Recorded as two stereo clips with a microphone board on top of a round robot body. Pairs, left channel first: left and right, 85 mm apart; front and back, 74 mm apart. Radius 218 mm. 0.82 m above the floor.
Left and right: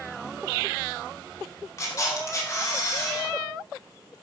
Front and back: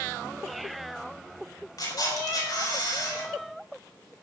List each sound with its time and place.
1.8 s a camera shutter: 35° left, 4.5 m